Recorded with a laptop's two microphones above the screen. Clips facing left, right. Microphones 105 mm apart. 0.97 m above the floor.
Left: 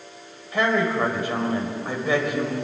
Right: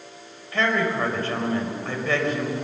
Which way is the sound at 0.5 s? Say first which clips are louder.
Left 2 dB; 15° left (ahead or behind).